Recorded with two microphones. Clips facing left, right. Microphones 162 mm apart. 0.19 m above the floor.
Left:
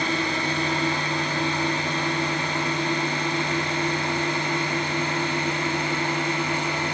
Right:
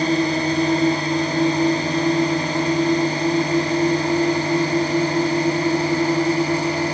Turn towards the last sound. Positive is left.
turn(degrees=-35)  # may be behind; listen again after turning